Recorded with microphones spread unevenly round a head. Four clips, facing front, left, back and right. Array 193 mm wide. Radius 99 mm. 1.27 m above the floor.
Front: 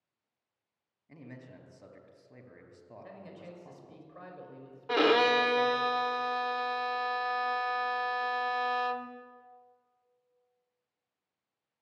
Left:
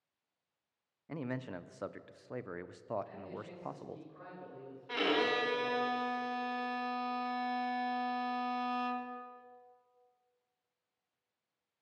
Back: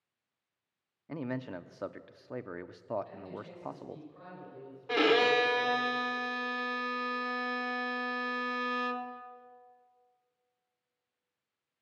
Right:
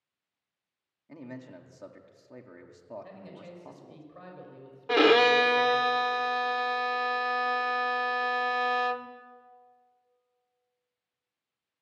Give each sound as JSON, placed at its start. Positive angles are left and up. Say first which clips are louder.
{"t": 1.1, "sound": "a man speaking", "louder": "left 3 dB, back 12 dB", "azimuth_deg": 160, "distance_m": 0.7}
{"t": 3.0, "sound": "a man speaking", "louder": "even, back 3 dB", "azimuth_deg": -40, "distance_m": 5.0}
{"t": 4.9, "sound": "a violin", "louder": "right 12 dB, front 1 dB", "azimuth_deg": -85, "distance_m": 0.8}